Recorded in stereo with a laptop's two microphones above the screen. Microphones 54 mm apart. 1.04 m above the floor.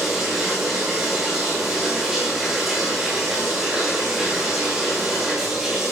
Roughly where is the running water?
Centre.